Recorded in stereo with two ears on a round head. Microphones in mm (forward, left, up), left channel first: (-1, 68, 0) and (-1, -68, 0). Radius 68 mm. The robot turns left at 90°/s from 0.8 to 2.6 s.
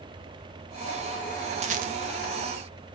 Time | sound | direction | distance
1.6 | a rattle | 40° right (ahead or behind) | 0.9 m